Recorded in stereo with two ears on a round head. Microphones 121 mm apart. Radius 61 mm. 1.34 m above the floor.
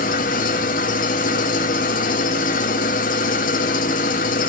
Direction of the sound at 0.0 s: 60° left (ahead or behind).